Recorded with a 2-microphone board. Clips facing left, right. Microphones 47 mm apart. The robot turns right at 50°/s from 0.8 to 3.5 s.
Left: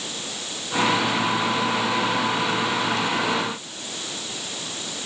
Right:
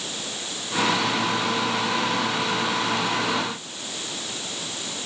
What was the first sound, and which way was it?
Only background noise.